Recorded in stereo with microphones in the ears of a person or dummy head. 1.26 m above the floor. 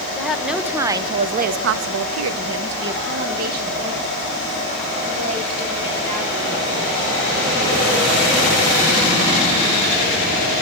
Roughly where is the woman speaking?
Centre.